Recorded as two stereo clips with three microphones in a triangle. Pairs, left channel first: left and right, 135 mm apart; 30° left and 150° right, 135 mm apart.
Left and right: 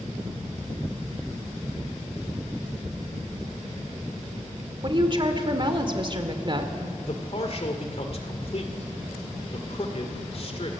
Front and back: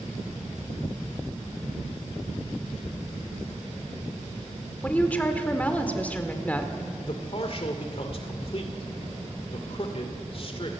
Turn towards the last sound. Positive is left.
turn(degrees=60)